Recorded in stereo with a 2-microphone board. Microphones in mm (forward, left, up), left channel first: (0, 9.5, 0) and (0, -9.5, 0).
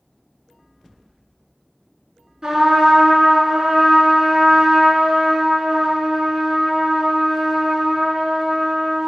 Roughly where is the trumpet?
Right.